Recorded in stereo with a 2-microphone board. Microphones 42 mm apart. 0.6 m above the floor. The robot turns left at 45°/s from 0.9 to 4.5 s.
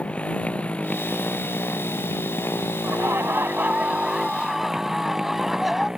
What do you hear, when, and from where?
0.0 s a motorcycle: 150° left; by 6.0 s 15° right
2.8 s laughter: 105° right; by 5.9 s straight behind